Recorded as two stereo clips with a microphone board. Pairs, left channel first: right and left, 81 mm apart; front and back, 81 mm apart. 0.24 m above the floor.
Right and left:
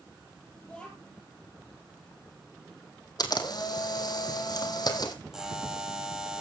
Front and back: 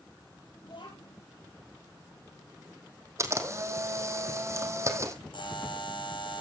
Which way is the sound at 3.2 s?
125° right.